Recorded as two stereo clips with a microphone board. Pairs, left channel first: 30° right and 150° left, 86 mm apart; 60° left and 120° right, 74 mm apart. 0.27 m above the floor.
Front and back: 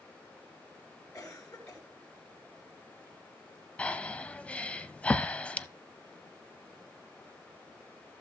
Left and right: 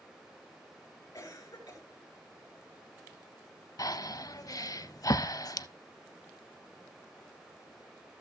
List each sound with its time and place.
1.1 s a cough: 10° left, 3 m
3.8 s breathing: 40° left, 0.5 m